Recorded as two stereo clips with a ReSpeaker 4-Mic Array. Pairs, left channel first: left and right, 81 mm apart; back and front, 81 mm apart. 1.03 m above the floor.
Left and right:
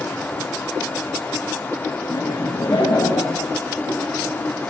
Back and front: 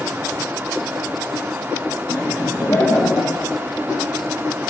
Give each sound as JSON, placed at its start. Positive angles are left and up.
{"t": 2.1, "sound": "laughter", "azimuth_deg": 130, "distance_m": 6.5}